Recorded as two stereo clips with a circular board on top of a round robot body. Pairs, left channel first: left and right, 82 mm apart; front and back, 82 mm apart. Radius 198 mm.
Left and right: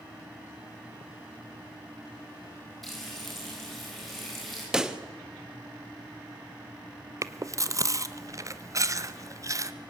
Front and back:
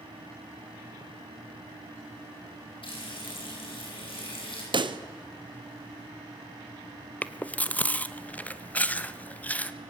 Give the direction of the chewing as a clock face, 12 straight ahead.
2 o'clock.